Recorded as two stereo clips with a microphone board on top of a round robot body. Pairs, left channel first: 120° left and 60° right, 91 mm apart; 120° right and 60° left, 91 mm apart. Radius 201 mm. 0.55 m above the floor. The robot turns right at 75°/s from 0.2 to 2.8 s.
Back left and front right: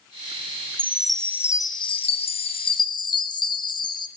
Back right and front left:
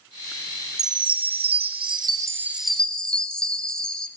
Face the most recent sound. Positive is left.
turn(degrees=160)